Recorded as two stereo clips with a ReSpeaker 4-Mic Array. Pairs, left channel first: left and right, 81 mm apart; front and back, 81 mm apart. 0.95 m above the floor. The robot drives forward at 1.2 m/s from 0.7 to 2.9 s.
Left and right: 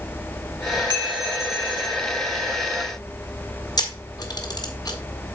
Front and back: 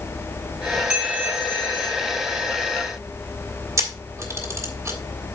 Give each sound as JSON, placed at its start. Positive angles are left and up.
{"t": 0.9, "sound": "a bell", "azimuth_deg": -105, "distance_m": 2.5}
{"t": 3.8, "sound": "a camera shutter", "azimuth_deg": 125, "distance_m": 1.7}